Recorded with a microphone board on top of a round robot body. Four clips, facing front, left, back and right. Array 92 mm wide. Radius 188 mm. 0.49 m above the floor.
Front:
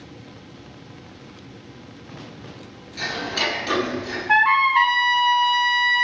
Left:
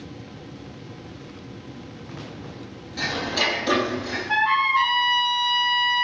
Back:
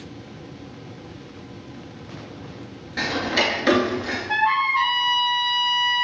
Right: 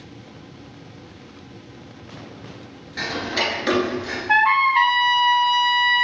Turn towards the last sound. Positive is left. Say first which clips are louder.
# right 4 dB, front 4 dB
turn(degrees=-45)